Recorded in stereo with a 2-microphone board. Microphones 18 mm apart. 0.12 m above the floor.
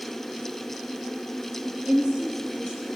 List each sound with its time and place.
1.6 s a woman speaking: 60° right (ahead or behind), 3.5 m